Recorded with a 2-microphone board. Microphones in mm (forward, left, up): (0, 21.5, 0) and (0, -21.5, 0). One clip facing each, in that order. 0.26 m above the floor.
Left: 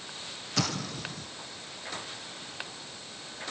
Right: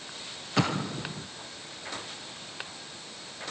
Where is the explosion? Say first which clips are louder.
Right 4 dB; 25° right (ahead or behind).